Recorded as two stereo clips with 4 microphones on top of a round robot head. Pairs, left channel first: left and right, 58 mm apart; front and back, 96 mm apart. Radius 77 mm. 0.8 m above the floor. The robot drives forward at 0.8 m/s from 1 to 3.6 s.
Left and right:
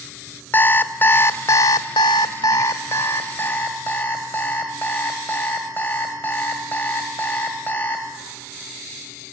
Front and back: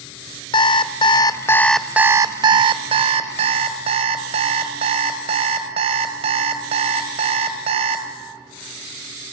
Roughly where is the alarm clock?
Ahead left.